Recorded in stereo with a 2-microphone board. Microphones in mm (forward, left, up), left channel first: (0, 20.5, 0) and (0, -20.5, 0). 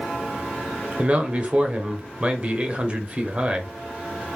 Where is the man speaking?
30° right (ahead or behind), 0.9 m.